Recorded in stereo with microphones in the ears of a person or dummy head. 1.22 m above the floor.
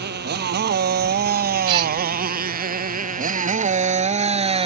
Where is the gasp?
25° right (ahead or behind).